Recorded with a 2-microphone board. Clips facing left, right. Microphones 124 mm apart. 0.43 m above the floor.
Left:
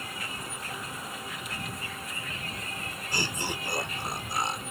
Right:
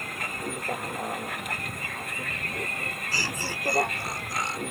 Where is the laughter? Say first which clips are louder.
Left 2 dB; 20° left (ahead or behind).